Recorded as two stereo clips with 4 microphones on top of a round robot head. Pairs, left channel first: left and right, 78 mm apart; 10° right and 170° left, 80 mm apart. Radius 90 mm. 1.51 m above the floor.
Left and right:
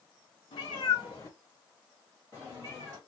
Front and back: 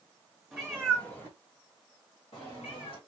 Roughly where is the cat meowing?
Left.